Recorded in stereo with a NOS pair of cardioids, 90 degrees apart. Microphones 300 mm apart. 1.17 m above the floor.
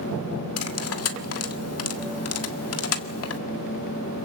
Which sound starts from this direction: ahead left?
Cutlery clinking, at 0.6 s.